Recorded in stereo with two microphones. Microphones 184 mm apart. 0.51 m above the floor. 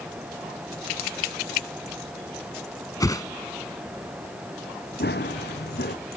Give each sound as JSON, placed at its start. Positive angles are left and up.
{"t": 3.0, "sound": "a whoosh", "side_deg": 20}
{"t": 5.0, "sound": "running footsteps", "side_deg": 70}